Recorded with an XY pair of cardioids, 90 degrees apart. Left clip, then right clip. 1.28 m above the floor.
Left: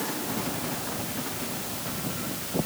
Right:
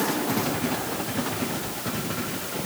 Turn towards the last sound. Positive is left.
No sound to turn to.